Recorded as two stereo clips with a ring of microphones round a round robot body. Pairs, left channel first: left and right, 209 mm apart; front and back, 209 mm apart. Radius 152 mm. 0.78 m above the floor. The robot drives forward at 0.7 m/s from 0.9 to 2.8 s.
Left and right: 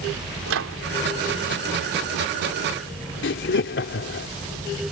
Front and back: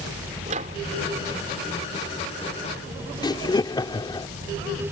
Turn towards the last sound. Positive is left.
turn(degrees=70)